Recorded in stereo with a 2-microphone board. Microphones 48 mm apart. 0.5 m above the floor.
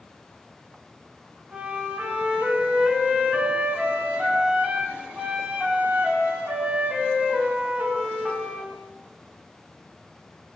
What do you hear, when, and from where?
1.5 s a flute: 25° right (ahead or behind), 0.6 m